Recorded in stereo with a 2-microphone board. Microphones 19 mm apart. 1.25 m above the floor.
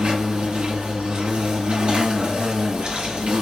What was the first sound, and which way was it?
An insect, 75° right (ahead or behind).